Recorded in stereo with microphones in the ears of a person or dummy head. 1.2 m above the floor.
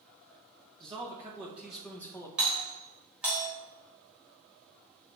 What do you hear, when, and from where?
0.8 s a man speaking: 25° right (ahead or behind), 1.4 m; by 2.3 s 15° left (ahead or behind), 1.4 m
2.4 s a doorbell: 5° right (ahead or behind), 3.5 m